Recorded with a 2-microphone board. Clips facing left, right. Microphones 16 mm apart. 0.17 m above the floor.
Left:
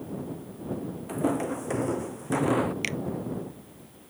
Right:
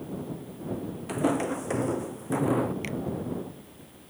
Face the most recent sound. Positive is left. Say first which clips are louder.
# left 3 dB
turn(degrees=65)  # may be behind; listen again after turning